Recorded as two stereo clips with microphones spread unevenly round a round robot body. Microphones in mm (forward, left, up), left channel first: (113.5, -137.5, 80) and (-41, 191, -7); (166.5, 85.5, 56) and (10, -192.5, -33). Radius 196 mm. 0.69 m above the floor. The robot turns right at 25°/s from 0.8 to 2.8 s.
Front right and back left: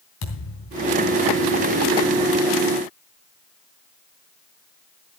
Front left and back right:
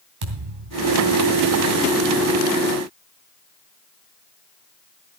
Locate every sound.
0.2 s a thud: 120° right, 3 m; by 1.0 s 110° right, 3 m